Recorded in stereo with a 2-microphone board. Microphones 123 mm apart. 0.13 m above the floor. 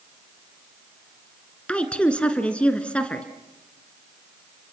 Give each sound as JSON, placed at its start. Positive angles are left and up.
{"t": 1.7, "sound": "a woman speaking", "side_deg": 10, "distance_m": 1.8}